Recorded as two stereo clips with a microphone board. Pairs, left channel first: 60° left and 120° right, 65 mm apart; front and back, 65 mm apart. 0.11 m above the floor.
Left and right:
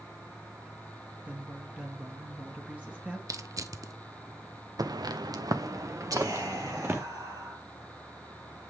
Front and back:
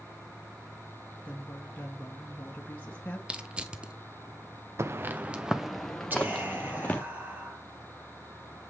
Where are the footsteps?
135° right, 1.0 m; by 7.0 s 65° right, 2 m.